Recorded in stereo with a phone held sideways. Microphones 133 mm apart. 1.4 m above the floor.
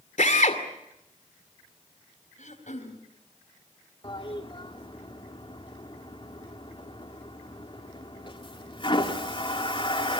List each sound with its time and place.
0.2 s a drill: 65° left (ahead or behind), 2.5 m
2.4 s throat clearing: 70° left (ahead or behind), 3.5 m
4.0 s a toilet flushing: 40° left (ahead or behind), 3 m